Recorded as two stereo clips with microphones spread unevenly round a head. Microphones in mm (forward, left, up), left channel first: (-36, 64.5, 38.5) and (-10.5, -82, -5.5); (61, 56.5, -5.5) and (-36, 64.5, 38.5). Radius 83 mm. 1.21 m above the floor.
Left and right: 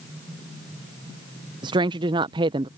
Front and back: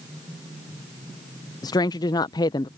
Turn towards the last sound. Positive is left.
turn(degrees=-30)